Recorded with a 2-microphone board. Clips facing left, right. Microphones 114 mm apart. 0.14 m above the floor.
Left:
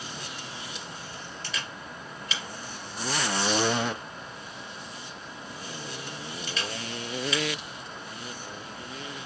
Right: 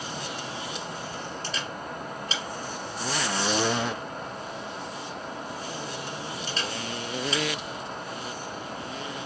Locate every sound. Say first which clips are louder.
1.4 s a camera shutter: right 5 dB; 45° right (ahead or behind), 1.8 m